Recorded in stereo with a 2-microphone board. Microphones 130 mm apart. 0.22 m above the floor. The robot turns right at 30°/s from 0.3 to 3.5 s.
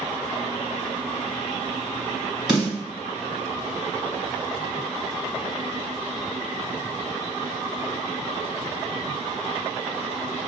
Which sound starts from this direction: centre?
A snare drum, at 2.5 s.